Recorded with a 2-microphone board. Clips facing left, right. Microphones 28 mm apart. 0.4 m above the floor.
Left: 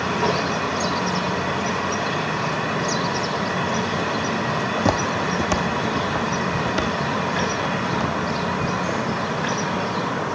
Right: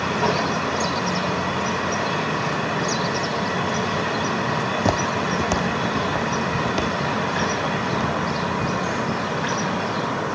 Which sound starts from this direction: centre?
Footsteps, at 4.8 s.